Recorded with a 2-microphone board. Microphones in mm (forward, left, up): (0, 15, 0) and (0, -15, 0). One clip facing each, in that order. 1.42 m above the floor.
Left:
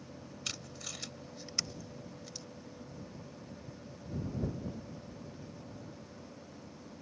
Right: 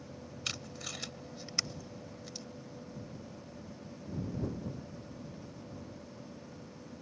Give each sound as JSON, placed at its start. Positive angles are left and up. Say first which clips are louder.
{"t": 0.5, "sound": "tape being pulled", "louder": "right 3 dB", "side_deg": -15}